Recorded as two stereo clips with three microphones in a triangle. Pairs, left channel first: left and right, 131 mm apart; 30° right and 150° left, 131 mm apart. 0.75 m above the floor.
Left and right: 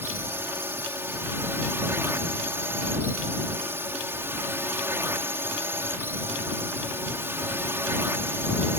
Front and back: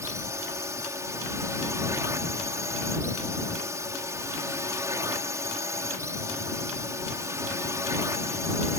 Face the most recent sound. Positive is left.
turn(degrees=-155)